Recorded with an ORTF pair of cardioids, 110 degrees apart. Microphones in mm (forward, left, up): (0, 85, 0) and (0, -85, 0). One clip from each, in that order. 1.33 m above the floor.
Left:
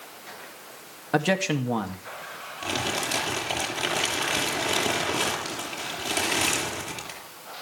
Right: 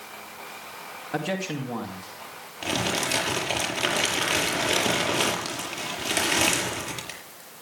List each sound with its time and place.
1.1 s a man speaking: 40° left, 2 m
2.6 s crumpling: 15° right, 6 m